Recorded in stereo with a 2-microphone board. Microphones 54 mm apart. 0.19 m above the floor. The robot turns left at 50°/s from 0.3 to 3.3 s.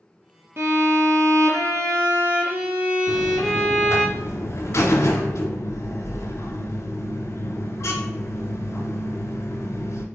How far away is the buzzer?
About 0.7 m.